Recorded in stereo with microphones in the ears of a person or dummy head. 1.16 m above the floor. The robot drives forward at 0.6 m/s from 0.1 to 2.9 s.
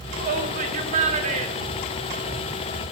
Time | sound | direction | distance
0.2 | a shout | 45° right (ahead or behind) | 2.5 m